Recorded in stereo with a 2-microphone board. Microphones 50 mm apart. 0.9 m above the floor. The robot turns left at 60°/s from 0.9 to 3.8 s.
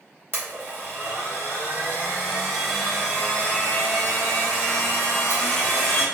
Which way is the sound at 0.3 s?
75° right.